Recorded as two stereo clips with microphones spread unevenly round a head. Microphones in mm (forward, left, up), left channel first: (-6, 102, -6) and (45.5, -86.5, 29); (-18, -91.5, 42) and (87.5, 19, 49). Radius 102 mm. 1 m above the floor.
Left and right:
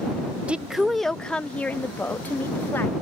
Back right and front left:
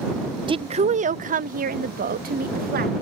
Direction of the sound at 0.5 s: 20° left.